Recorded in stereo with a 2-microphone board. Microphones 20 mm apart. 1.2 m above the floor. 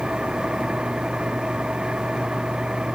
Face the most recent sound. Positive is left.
turn(degrees=-50)  # may be behind; listen again after turning